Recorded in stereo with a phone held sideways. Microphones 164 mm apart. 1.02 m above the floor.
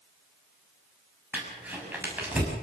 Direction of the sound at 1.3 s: 10° right (ahead or behind).